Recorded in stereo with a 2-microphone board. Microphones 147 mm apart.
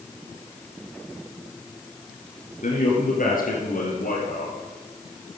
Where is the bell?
I don't hear a bell.